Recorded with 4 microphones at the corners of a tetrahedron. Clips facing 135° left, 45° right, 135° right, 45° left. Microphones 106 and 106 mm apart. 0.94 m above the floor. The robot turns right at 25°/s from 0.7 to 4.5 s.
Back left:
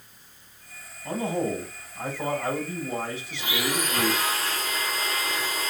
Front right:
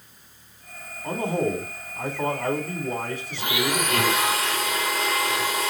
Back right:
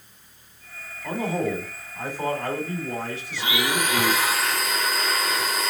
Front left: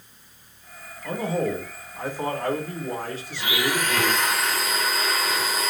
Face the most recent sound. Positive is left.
turn(degrees=-45)